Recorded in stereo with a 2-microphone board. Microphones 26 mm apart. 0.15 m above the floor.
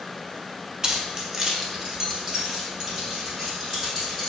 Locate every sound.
0.8 s keys jangling: 30° right (ahead or behind), 0.8 m; by 4.3 s 20° right (ahead or behind), 3.5 m